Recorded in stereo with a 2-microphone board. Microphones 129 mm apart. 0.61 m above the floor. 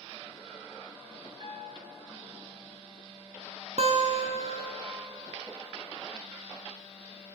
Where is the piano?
40° right (ahead or behind), 1.3 m.